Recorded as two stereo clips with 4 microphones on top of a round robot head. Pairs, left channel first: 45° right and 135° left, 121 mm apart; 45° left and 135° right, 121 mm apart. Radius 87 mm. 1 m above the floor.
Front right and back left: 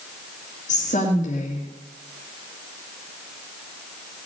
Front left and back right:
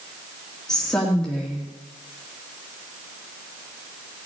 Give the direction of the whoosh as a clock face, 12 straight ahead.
No whoosh in this recording.